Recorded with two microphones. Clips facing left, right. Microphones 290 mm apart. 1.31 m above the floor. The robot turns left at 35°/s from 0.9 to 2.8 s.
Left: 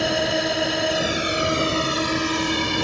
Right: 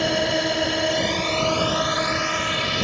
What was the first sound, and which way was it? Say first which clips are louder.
A drone: even; straight behind.